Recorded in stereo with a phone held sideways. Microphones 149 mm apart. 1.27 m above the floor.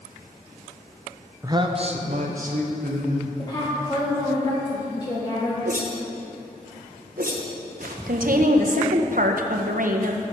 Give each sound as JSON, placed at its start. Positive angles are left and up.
{"t": 1.4, "sound": "a man speaking", "side_deg": -20, "distance_m": 0.6}
{"t": 3.4, "sound": "a woman speaking", "side_deg": 25, "distance_m": 1.3}
{"t": 5.7, "sound": "a whoosh", "side_deg": -75, "distance_m": 0.9}
{"t": 8.1, "sound": "a woman speaking", "side_deg": -70, "distance_m": 0.7}